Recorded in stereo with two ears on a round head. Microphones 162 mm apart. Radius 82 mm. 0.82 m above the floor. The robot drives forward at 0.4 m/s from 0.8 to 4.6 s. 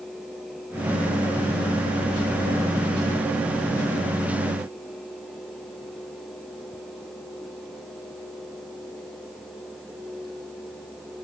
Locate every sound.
Only background noise.